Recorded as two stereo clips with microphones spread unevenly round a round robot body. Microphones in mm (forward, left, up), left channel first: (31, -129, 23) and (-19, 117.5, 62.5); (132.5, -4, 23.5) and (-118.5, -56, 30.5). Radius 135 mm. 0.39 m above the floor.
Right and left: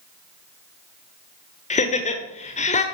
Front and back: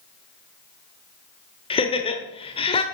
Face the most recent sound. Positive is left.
turn(degrees=-45)